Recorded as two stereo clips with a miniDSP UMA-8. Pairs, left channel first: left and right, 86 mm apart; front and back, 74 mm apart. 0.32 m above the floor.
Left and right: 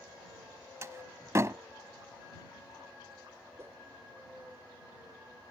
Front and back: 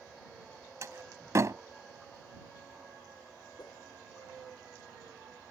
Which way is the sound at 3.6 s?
30° right.